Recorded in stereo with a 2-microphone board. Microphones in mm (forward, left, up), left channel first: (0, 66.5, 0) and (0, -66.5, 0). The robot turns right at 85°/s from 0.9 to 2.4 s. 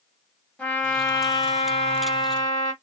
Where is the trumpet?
10° left, 1.2 m; by 2.7 s 140° left, 1.2 m.